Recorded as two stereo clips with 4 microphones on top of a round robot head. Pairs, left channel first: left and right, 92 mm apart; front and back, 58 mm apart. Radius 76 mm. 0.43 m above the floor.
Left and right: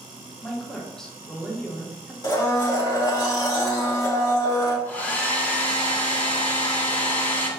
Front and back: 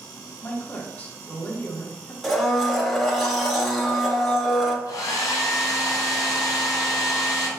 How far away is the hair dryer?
About 1.3 m.